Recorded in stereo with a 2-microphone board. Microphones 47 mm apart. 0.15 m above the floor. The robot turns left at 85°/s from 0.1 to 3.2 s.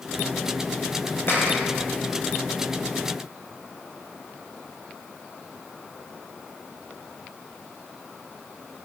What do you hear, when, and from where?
1.3 s a clap: 55° left, 8 m; by 1.6 s 25° left, 8 m